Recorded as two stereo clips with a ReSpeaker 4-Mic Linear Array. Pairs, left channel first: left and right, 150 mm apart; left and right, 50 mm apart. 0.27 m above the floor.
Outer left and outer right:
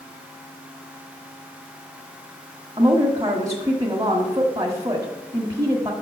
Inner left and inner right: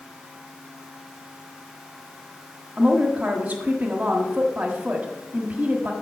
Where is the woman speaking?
25° right (ahead or behind), 1.5 m.